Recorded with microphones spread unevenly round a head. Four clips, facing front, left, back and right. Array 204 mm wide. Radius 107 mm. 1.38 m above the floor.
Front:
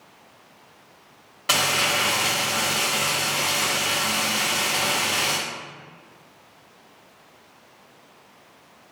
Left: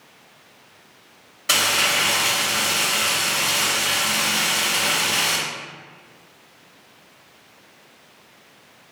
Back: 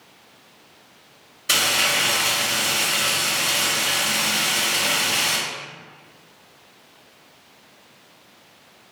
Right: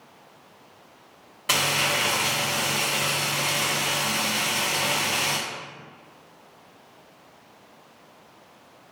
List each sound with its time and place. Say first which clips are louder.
1.5 s frying: left 2 dB, even; 20° right, 1.4 m